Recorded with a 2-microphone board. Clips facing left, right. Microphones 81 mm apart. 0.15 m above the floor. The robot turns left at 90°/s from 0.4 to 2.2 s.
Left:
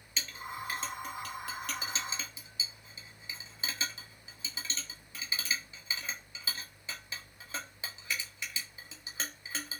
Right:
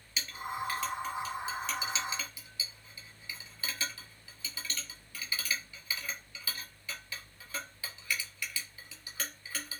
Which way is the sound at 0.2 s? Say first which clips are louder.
Right 4 dB; 5° right (ahead or behind).